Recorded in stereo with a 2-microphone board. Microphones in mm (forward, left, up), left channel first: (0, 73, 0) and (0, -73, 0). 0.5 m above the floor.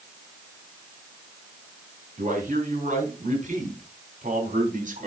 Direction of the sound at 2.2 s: 60° right (ahead or behind).